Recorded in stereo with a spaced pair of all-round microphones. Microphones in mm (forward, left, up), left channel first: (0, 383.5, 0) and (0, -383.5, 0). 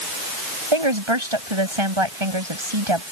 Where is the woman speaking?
40° right (ahead or behind).